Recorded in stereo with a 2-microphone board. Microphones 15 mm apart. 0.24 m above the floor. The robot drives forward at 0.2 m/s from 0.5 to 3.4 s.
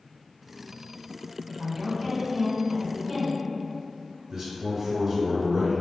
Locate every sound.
1.5 s a woman speaking: 20° right (ahead or behind), 1.5 m; by 4.2 s 15° right (ahead or behind), 1.8 m
4.3 s a man speaking: 20° right (ahead or behind), 1.9 m